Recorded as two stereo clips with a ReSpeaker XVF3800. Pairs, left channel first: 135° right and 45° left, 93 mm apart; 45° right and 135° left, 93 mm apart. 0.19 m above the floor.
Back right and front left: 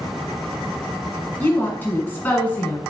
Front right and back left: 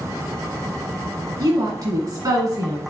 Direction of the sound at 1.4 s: 160° left.